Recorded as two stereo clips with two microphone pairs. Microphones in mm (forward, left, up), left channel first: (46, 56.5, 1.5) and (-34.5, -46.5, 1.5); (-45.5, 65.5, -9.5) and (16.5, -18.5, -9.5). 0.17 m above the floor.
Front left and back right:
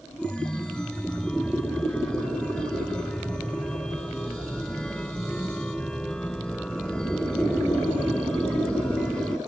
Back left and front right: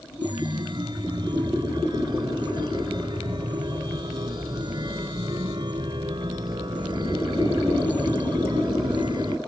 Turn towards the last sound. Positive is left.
turn(degrees=-30)